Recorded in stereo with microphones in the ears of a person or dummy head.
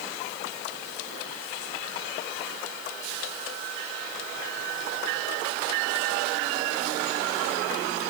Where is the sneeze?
I don't hear a sneeze.